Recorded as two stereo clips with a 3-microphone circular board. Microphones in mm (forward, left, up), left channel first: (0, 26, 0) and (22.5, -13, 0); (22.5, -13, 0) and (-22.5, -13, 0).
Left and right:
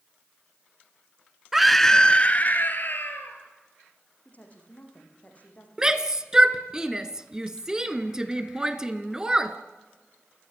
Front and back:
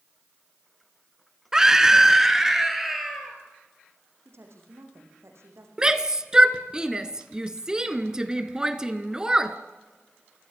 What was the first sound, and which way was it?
A scream, 130° right.